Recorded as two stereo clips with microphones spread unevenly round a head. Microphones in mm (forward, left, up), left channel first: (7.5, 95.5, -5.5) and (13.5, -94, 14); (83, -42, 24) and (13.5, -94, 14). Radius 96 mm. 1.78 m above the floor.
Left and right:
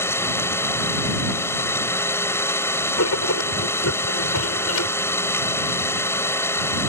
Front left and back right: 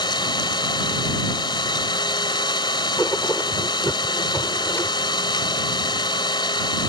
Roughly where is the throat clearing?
No throat clearing in this recording.